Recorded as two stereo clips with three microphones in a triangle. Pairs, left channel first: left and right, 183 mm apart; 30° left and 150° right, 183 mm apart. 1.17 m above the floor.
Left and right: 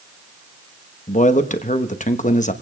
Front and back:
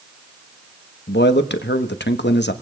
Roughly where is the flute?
I don't hear a flute.